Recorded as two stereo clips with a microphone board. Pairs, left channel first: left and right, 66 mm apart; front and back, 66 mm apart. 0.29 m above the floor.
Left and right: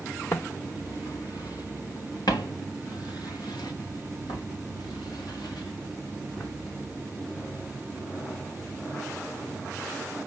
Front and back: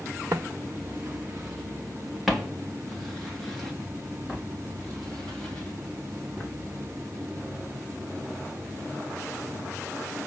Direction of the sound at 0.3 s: 135° left.